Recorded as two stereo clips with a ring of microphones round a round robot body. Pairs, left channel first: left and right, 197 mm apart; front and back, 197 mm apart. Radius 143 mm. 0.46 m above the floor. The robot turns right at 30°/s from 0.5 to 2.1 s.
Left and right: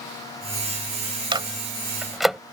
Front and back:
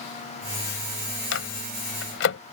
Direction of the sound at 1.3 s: 25° right.